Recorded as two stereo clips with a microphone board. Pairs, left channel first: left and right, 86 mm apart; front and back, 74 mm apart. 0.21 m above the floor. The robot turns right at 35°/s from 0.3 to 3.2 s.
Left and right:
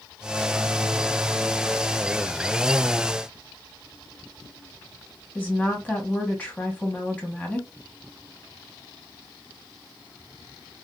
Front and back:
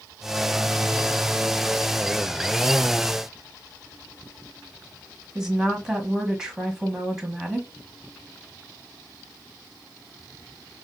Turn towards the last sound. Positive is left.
turn(degrees=120)